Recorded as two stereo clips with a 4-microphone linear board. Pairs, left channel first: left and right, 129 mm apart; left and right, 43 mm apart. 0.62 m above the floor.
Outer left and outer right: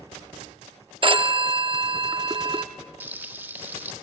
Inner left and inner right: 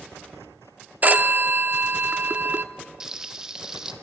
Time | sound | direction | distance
1.0 | a phone ringing | 40° right (ahead or behind) | 0.7 m
3.0 | frying | 15° right (ahead or behind) | 1.2 m